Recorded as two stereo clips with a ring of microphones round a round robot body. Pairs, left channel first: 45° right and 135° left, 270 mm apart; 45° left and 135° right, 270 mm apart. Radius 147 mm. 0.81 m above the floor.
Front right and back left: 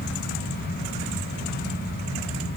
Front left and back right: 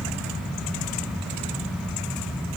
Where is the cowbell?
No cowbell in this recording.